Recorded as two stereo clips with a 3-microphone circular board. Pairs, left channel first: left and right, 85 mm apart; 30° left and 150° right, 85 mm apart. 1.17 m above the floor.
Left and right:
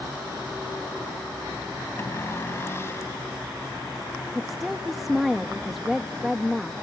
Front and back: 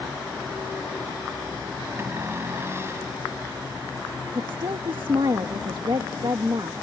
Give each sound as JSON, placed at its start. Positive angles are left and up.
{"t": 2.0, "sound": "a cupboard door", "azimuth_deg": 150}
{"t": 4.3, "sound": "a woman speaking", "azimuth_deg": 180}